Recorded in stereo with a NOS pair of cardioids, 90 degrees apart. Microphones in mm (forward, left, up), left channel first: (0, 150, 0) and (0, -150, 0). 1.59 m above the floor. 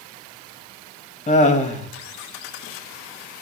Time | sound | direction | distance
1.3 | laughter | 25° left | 2 m